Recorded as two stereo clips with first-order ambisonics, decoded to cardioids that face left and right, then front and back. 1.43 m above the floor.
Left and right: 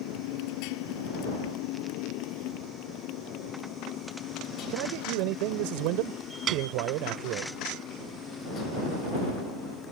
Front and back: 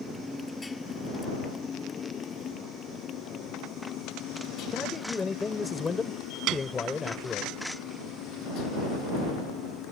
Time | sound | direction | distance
0.0 | a motorcycle | 90° left | ?
4.7 | a man speaking | 75° right | ?
6.5 | a piano | 145° right | ?